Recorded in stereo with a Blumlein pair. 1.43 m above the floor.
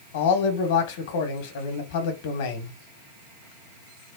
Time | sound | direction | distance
0.1 | a man speaking | 55° left | 1.1 m